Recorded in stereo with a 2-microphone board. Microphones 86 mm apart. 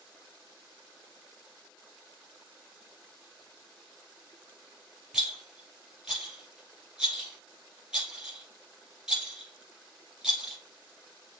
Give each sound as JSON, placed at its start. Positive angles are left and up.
{"t": 5.1, "sound": "a rattle", "side_deg": -5, "distance_m": 3.0}